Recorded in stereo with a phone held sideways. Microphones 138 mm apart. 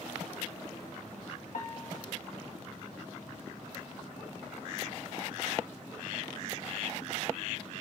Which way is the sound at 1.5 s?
65° left (ahead or behind).